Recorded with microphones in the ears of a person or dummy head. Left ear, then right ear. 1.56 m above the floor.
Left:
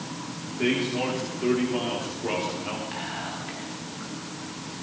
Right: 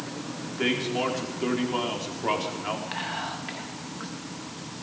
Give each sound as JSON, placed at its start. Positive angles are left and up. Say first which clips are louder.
{"t": 0.5, "sound": "a man speaking", "louder": "left 1 dB", "side_deg": -40, "distance_m": 4.0}
{"t": 2.9, "sound": "whispering", "louder": "right 1 dB", "side_deg": -35, "distance_m": 1.8}